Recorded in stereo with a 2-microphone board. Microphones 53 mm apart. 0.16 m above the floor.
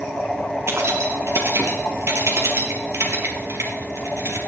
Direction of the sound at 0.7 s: 60° right (ahead or behind).